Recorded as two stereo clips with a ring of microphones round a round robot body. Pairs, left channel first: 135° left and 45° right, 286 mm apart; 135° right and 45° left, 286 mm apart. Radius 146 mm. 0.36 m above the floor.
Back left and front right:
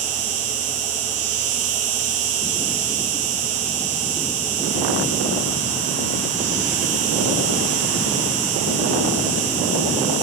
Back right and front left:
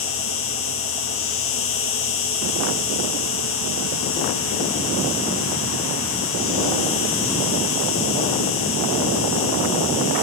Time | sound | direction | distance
0.0 | an insect | 85° right | 2.5 m